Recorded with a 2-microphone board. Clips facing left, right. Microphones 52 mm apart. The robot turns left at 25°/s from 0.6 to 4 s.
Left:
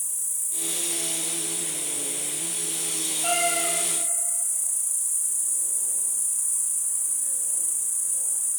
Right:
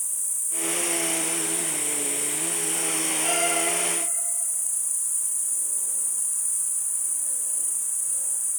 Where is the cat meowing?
25° left (ahead or behind), 1.9 m; by 3.7 s 35° left (ahead or behind), 1.9 m.